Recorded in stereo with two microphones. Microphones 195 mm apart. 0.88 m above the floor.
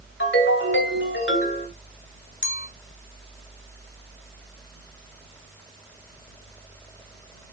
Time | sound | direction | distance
0.2 | a ringtone | 65° left (ahead or behind) | 2.5 m
2.4 | a clink | 70° left (ahead or behind) | 1.3 m